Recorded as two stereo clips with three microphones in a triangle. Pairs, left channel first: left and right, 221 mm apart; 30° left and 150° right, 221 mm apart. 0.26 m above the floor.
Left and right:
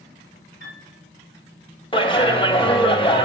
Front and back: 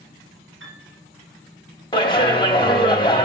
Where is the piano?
135° right, 2.5 m.